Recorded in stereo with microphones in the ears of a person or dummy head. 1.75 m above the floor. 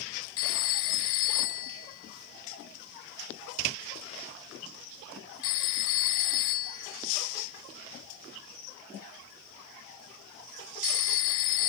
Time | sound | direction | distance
0.4 | a phone ringing | 20° left (ahead or behind) | 0.7 m